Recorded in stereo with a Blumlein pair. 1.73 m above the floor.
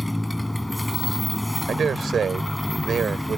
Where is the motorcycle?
5° left.